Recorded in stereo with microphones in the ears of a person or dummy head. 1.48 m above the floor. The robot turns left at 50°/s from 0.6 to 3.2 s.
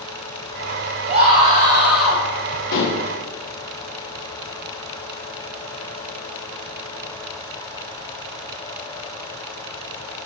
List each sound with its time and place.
1.1 s a scream: 130° right, 3 m; by 2.2 s 170° left, 3 m
2.7 s dishes clattering: 55° left (ahead or behind), 1.0 m